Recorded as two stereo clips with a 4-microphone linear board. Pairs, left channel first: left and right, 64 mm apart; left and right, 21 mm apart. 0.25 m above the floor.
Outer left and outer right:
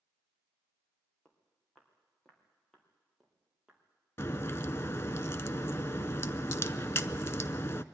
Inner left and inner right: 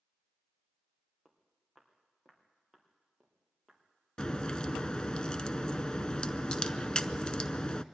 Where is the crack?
40° left (ahead or behind), 0.5 m.